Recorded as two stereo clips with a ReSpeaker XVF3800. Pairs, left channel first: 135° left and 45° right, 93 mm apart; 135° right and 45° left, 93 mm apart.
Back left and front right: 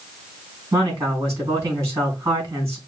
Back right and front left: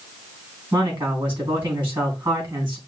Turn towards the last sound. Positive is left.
turn(degrees=10)